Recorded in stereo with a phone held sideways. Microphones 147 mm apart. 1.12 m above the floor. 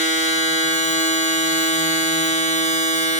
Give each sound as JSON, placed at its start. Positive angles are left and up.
{"t": 0.0, "sound": "a machine running", "side_deg": 55, "distance_m": 2.0}